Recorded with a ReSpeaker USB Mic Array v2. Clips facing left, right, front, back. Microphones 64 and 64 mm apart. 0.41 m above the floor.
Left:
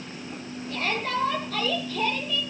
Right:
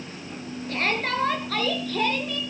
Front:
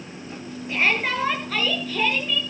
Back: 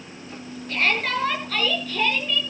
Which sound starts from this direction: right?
A shout, at 0.7 s.